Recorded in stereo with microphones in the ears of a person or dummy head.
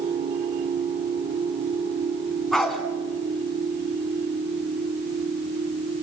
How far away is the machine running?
About 0.8 m.